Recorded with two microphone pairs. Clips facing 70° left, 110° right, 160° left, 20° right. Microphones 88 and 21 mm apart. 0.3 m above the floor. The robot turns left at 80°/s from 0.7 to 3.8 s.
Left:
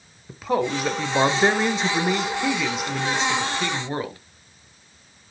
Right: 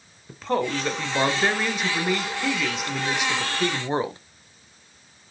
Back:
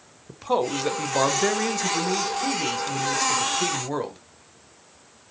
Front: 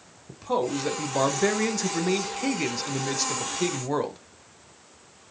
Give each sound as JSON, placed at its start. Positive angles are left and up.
{"t": 0.3, "sound": "a man speaking", "azimuth_deg": 150, "distance_m": 0.9}